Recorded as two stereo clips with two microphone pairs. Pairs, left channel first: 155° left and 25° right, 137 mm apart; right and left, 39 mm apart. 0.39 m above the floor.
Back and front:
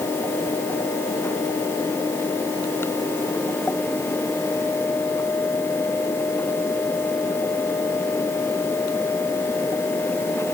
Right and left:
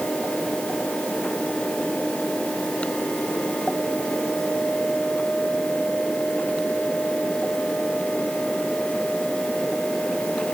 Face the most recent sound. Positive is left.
No sound to turn to.